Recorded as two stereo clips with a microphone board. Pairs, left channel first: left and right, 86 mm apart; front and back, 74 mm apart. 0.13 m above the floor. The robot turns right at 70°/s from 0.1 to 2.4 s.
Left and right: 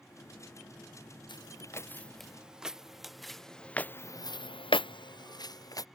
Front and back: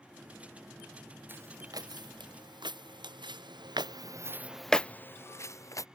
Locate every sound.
1.3 s footsteps: 115° left; by 5.9 s 45° left